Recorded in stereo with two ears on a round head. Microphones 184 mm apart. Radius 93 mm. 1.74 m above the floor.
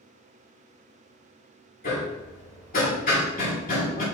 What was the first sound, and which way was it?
Hammering, 40° left (ahead or behind).